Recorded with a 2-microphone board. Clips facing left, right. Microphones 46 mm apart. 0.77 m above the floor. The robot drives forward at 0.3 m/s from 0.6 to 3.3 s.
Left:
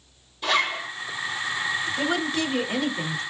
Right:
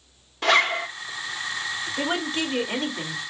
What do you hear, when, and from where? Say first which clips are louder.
0.4 s a zipper: right 4 dB; 75° right (ahead or behind), 1.3 m
2.0 s a woman speaking: right 2 dB; 30° right (ahead or behind), 1.5 m; by 3.2 s 25° right (ahead or behind), 1.8 m